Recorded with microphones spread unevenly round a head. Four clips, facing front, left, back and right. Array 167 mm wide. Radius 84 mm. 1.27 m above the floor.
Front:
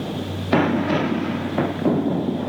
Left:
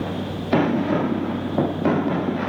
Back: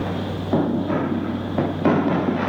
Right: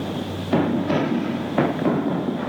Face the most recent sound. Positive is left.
No sound to turn to.